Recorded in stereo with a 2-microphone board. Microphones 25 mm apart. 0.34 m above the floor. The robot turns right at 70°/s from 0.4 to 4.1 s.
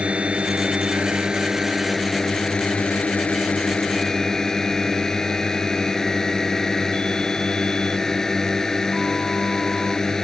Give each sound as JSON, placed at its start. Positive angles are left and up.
{"t": 0.0, "sound": "a drone", "azimuth_deg": -100}